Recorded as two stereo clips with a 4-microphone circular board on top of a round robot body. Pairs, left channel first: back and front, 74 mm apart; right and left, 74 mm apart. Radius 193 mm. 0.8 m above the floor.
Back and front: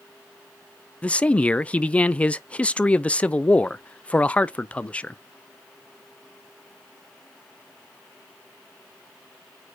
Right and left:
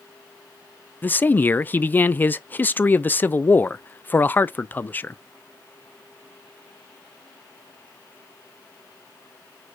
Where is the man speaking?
125° right, 0.5 m.